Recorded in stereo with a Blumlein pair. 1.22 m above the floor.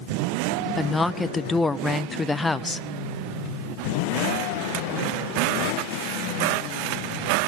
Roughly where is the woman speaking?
Ahead.